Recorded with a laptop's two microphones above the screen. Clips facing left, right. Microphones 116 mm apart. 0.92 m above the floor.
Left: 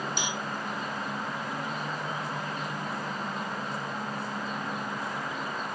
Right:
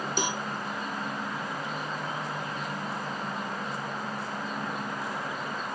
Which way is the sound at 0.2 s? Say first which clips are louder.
Right 3 dB; 45° right (ahead or behind).